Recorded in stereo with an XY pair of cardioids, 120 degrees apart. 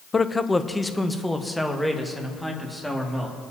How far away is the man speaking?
About 0.5 m.